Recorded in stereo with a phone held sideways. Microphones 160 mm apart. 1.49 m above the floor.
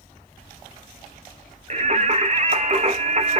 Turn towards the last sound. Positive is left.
turn(degrees=-45)  # may be behind; listen again after turning